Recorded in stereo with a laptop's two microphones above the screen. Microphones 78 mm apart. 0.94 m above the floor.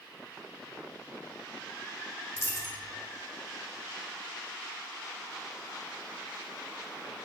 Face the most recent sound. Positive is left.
turn(degrees=35)  # may be behind; listen again after turning